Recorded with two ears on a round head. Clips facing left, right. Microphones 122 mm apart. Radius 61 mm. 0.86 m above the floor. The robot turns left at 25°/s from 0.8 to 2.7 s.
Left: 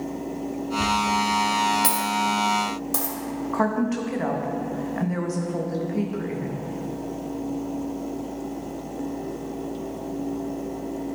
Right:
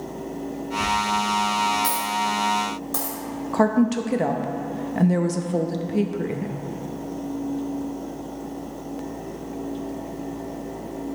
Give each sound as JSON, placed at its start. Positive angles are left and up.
{"t": 0.8, "sound": "a dropped coin", "side_deg": 60, "distance_m": 2.0}
{"t": 3.5, "sound": "a woman speaking", "side_deg": -35, "distance_m": 0.6}